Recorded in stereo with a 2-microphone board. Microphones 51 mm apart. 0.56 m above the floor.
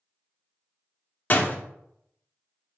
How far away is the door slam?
About 0.5 m.